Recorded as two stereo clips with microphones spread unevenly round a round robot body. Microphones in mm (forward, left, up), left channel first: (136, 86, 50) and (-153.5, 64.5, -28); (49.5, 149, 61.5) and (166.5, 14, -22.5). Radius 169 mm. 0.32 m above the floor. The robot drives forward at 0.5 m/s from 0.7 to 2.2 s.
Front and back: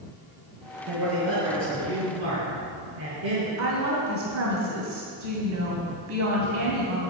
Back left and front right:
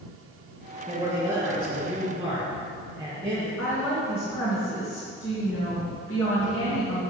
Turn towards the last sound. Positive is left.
turn(degrees=175)